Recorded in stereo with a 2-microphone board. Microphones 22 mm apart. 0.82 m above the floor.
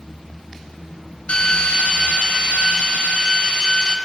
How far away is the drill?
About 3 m.